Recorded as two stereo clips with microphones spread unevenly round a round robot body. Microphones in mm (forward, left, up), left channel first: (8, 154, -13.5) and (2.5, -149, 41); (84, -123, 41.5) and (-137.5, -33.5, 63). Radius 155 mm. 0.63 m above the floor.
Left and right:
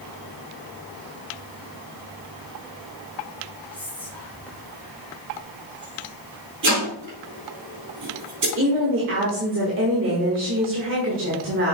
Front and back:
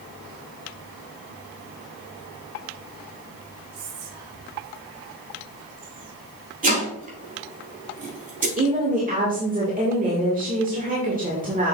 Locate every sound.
3.7 s whispering: 170° left, 2 m
6.6 s chopping: 145° right, 3.5 m
8.6 s a woman speaking: 145° right, 2.0 m